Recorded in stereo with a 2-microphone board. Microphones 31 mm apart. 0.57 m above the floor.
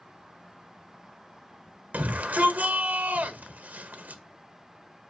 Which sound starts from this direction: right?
A shout, at 1.9 s.